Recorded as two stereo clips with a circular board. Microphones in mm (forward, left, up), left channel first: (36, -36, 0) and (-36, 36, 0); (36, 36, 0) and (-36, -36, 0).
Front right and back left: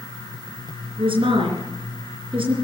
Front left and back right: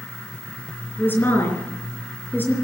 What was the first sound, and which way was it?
A woman speaking, 115° left.